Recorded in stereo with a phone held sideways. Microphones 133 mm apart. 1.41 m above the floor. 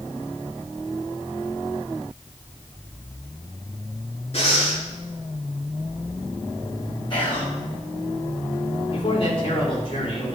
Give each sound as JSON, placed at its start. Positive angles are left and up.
{"t": 4.3, "sound": "breathing", "side_deg": 50, "distance_m": 2.5}
{"t": 7.1, "sound": "whispering", "side_deg": 40, "distance_m": 5.5}
{"t": 8.9, "sound": "a man speaking", "side_deg": 45, "distance_m": 4.5}